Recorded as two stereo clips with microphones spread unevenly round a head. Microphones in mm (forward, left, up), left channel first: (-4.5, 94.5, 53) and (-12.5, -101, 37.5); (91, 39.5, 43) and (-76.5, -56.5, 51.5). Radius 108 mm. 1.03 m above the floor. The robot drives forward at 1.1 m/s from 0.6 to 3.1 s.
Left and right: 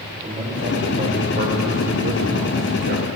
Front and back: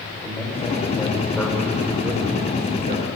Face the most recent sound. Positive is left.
turn(degrees=-110)